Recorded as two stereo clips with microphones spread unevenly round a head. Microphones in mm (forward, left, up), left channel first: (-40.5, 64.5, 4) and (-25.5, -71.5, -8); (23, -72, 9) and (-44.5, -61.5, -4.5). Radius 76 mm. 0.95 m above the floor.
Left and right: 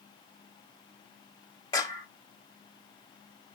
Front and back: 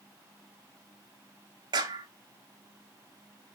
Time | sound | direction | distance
1.7 | a clap | 160° left | 2.5 m